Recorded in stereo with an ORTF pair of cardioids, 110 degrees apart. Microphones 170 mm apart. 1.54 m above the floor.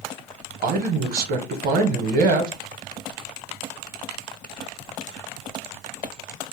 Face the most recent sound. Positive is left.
turn(degrees=-65)